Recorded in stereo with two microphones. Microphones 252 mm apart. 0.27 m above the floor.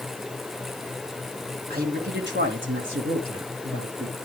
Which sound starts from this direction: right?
A man speaking, at 1.7 s.